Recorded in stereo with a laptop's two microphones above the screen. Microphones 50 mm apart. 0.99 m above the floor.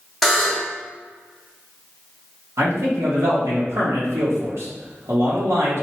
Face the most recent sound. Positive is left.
turn(degrees=-75)  # may be behind; listen again after turning